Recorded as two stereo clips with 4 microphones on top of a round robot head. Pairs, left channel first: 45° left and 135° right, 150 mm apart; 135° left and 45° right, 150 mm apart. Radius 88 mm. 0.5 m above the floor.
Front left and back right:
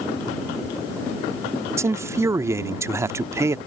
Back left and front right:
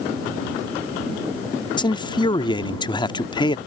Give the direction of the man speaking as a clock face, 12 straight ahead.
6 o'clock.